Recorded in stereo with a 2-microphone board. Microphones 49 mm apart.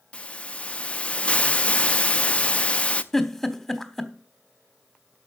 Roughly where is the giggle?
Centre.